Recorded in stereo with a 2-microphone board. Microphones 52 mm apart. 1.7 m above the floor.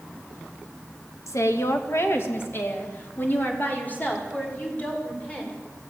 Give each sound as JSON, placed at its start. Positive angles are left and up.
{"t": 1.3, "sound": "a woman speaking", "side_deg": 75, "distance_m": 1.9}